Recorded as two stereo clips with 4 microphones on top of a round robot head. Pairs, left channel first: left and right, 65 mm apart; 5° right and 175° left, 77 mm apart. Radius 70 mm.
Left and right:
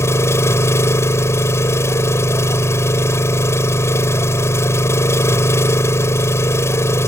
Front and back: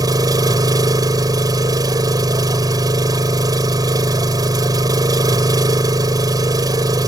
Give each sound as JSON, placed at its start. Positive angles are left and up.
{"t": 0.0, "sound": "an engine running", "azimuth_deg": 135}